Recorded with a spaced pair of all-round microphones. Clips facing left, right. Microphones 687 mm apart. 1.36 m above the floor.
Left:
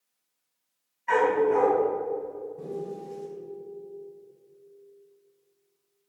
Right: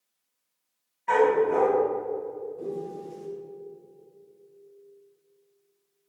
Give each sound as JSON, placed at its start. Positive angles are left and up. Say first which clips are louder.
{"t": 1.1, "sound": "a dog barking", "louder": "right 1 dB", "side_deg": -65, "distance_m": 3.0}
{"t": 2.6, "sound": "a piano", "louder": "even", "side_deg": 50, "distance_m": 3.0}